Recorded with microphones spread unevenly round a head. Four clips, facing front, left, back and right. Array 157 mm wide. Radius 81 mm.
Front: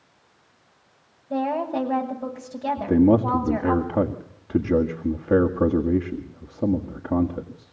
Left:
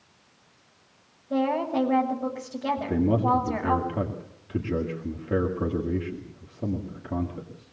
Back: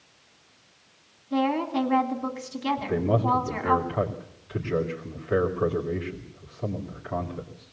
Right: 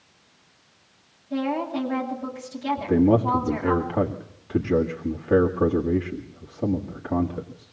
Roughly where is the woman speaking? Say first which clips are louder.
Left 1 dB, even; ahead left.